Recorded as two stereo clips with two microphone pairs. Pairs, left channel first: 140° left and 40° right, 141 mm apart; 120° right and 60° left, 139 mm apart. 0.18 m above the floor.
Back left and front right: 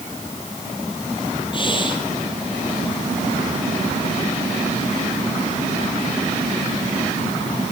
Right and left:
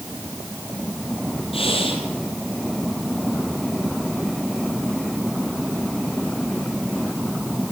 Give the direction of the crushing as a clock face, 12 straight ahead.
No crushing in this recording.